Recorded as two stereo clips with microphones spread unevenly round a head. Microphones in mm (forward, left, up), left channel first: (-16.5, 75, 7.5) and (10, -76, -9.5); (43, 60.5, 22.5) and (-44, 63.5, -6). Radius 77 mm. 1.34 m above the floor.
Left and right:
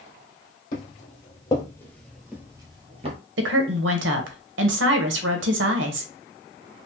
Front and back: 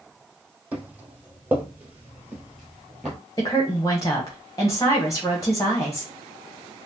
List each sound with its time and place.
0.7 s footsteps: 95° left, 2 m; by 3.2 s 70° right, 1.6 m
3.4 s a woman speaking: 65° right, 0.9 m